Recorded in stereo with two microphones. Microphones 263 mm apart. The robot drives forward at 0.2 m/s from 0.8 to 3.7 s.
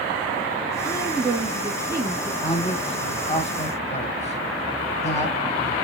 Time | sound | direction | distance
0.8 | a woman speaking | 10° right (ahead or behind) | 2.5 m
2.4 | a man speaking | 20° left (ahead or behind) | 1.1 m